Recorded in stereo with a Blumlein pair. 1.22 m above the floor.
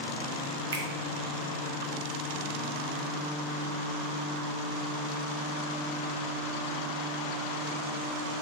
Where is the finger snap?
65° right, 0.6 m.